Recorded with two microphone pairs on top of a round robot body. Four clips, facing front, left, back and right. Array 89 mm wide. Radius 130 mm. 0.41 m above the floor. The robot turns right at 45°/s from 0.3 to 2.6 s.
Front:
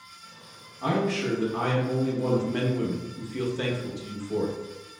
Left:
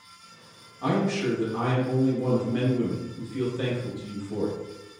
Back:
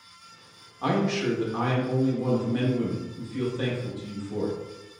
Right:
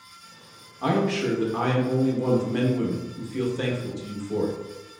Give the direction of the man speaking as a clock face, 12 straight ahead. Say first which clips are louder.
Right 2 dB, back 1 dB; 4 o'clock.